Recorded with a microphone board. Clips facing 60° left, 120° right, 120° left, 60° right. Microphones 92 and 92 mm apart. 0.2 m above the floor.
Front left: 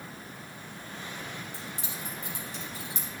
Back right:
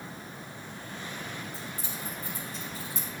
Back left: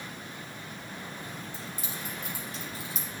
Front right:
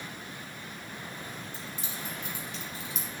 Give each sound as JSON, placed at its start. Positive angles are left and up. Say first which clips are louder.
{"t": 1.5, "sound": "keys jangling", "louder": "back right 1 dB, back left 1 dB", "azimuth_deg": 70, "distance_m": 4.5}